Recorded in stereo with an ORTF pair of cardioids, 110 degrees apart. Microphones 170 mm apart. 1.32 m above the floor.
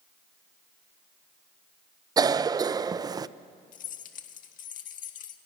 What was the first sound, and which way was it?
A cough, 25° right.